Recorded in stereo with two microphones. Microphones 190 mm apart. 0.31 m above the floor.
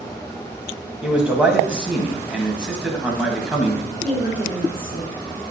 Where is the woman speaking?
30° right (ahead or behind), 4 m.